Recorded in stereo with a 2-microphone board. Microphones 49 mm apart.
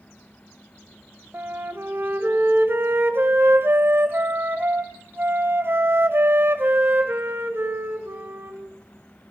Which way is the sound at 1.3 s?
45° right (ahead or behind).